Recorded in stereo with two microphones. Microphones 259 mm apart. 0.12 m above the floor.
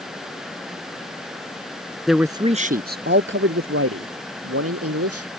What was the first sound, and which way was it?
A man speaking, centre (ahead or behind).